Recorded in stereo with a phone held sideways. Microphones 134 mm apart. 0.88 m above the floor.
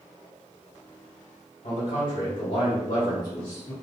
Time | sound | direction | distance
1.6 | a man speaking | 55° left (ahead or behind) | 1.6 m